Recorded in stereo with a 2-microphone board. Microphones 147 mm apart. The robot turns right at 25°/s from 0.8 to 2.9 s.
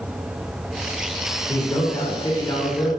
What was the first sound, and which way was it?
A man speaking, 25° left (ahead or behind).